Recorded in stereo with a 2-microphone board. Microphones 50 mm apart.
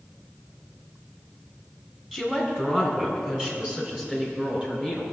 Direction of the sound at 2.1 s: 10° right (ahead or behind).